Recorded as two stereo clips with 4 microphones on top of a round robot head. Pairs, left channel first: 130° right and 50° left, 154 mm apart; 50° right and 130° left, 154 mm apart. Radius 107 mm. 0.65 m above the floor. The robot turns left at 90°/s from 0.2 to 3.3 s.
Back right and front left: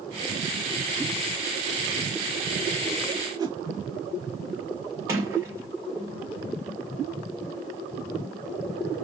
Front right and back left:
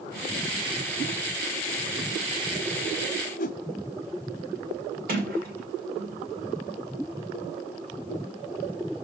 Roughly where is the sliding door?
Behind left.